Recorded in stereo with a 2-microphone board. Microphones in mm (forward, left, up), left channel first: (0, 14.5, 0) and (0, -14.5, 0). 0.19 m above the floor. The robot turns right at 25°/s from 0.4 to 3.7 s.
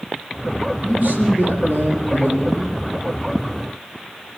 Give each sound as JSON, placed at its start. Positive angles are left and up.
{"t": 0.8, "sound": "a man speaking", "azimuth_deg": -130, "distance_m": 7.0}